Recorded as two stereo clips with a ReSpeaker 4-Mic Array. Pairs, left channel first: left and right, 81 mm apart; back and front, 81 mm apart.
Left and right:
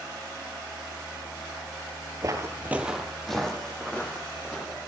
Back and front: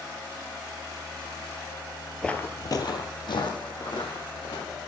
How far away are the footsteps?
About 0.6 m.